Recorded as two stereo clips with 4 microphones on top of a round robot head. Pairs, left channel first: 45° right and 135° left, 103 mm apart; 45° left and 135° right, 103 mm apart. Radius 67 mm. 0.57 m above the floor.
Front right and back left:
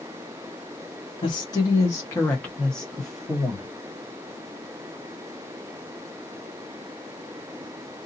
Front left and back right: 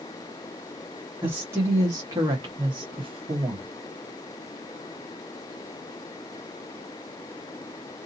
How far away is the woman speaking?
About 1.4 m.